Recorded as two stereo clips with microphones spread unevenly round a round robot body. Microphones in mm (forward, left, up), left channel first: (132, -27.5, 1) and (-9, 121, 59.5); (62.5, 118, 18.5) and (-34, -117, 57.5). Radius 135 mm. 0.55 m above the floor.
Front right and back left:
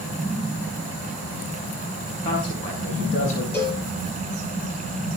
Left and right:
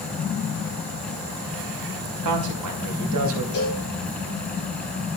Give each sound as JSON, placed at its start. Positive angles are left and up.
{"t": 2.2, "sound": "a man speaking", "azimuth_deg": -115, "distance_m": 4.0}
{"t": 3.5, "sound": "a cowbell", "azimuth_deg": 35, "distance_m": 8.5}